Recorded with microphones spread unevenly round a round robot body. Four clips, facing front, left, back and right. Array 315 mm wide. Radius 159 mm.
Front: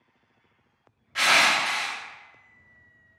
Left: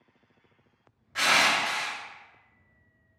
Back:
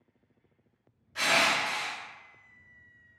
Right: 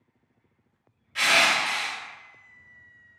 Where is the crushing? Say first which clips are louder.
Right 1 dB, front 5 dB; 35° left, 1.0 m.